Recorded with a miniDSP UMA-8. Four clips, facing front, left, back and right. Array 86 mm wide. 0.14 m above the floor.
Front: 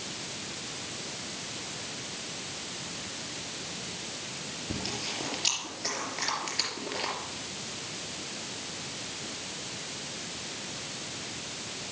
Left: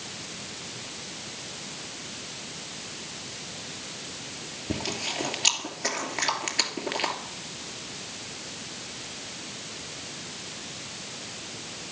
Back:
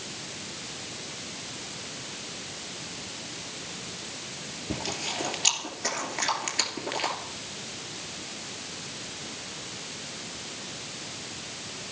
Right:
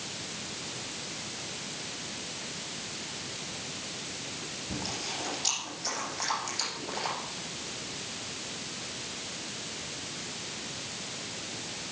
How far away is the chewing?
About 3 m.